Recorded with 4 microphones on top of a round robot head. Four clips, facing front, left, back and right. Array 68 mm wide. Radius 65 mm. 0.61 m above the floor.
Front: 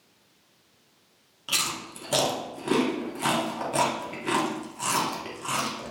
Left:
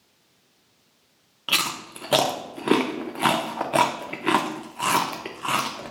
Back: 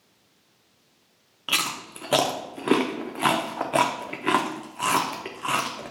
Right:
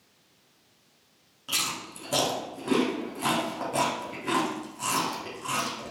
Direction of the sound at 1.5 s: 130° left.